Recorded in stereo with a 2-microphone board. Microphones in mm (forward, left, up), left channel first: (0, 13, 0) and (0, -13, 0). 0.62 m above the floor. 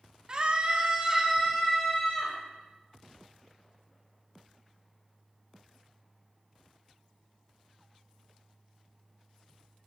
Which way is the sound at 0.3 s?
30° right (ahead or behind).